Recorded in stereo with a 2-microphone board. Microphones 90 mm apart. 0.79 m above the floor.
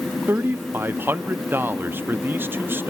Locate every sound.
0.3 s a man speaking: 25° right (ahead or behind), 0.8 m